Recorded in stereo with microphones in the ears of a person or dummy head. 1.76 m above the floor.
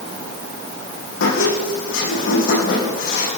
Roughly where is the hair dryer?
I don't hear a hair dryer.